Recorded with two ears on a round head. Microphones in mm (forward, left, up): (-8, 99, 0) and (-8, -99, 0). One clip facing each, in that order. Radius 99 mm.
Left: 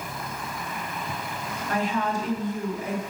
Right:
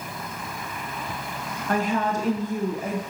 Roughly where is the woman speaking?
Right.